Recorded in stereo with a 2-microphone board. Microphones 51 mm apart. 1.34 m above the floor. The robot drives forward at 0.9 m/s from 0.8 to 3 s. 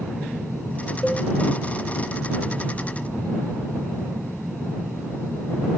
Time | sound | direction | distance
1.0 | a cowbell | centre (ahead or behind) | 0.8 m